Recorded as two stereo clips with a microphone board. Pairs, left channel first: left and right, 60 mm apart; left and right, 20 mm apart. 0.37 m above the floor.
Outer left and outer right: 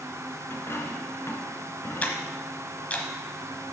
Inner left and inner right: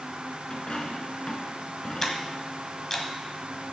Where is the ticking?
20° left (ahead or behind), 1.2 m.